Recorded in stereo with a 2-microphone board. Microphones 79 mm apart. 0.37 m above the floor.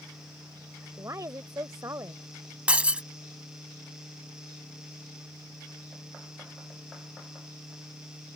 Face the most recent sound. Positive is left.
turn(degrees=-15)  # may be behind; listen again after turning